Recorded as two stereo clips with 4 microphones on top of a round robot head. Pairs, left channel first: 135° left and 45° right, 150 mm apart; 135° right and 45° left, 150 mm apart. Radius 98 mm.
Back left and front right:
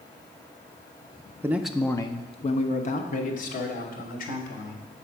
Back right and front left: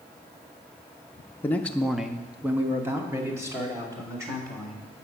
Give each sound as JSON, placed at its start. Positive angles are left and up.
{"t": 1.4, "sound": "a man speaking", "azimuth_deg": -85, "distance_m": 0.6}